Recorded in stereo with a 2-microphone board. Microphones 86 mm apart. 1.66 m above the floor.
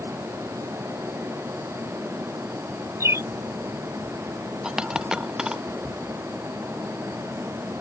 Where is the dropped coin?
10° right (ahead or behind).